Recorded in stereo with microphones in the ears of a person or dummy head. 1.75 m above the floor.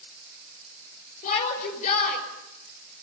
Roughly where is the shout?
Left.